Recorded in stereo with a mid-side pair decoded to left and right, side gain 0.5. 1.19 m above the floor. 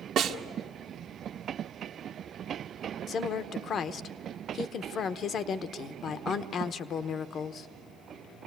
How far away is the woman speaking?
About 0.9 m.